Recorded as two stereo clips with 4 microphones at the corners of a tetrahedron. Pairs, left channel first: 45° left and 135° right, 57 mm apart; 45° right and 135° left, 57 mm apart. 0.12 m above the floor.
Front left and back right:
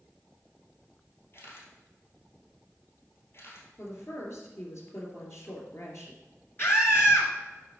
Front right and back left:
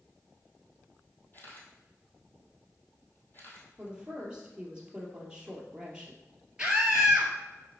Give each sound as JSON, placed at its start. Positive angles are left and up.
{"t": 1.3, "sound": "a camera shutter", "azimuth_deg": 5, "distance_m": 2.0}
{"t": 3.8, "sound": "a woman speaking", "azimuth_deg": 65, "distance_m": 2.5}
{"t": 6.6, "sound": "a scream", "azimuth_deg": 65, "distance_m": 1.6}